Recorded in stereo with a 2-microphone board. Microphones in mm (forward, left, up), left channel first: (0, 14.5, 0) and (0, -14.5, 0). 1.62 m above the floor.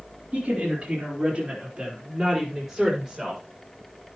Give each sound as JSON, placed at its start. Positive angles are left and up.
{"t": 0.3, "sound": "a woman speaking", "side_deg": -50, "distance_m": 4.0}